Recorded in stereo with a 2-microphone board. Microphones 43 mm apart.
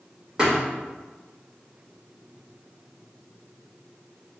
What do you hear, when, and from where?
0.4 s a thud: 15° right (ahead or behind), 1.8 m